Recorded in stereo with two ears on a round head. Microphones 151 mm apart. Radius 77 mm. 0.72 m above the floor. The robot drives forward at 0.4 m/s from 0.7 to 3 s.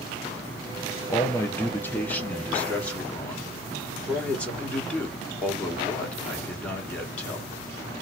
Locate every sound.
1.1 s a man speaking: 15° left (ahead or behind), 0.6 m; by 7.5 s 10° left (ahead or behind), 1.2 m